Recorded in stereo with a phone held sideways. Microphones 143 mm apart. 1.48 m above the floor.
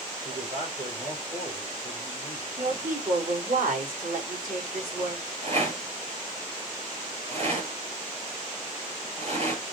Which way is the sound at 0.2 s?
70° right (ahead or behind).